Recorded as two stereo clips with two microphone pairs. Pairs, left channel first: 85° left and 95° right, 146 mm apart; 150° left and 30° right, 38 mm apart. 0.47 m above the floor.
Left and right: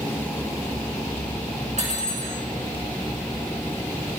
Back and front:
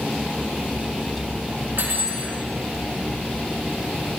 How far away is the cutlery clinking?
About 3.5 m.